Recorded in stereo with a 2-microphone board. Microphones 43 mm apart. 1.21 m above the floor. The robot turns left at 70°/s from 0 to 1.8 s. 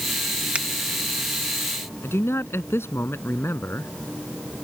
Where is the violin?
No violin in this recording.